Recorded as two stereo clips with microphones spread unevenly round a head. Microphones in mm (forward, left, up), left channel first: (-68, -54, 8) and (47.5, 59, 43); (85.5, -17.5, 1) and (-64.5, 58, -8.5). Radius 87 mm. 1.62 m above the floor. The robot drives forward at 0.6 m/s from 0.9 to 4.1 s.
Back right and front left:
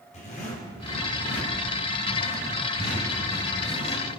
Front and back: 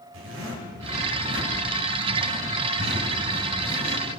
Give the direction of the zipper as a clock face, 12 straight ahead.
6 o'clock.